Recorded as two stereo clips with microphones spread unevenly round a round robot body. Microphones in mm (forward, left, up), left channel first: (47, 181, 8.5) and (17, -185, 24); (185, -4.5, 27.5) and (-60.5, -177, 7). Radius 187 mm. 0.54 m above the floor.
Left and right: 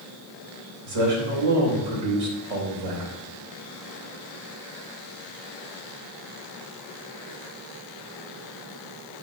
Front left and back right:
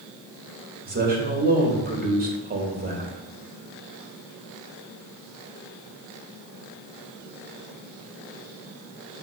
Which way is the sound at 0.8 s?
90° right.